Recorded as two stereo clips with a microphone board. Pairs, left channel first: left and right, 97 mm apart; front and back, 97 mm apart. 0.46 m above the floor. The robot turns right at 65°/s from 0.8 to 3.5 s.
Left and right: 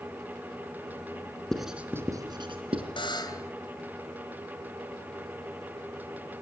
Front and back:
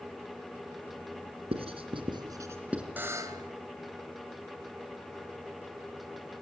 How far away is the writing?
About 3 m.